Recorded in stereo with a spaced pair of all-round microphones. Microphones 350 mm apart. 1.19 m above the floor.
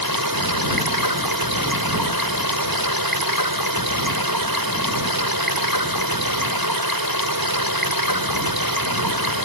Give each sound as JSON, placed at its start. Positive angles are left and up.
{"t": 0.0, "sound": "running water", "side_deg": -85}